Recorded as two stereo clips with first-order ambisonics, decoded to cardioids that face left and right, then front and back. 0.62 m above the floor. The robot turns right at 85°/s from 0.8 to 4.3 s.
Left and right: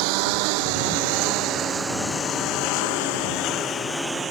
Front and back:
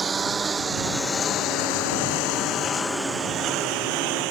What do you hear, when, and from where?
0.0 s a lawn mower: 105° right; by 4.3 s 155° right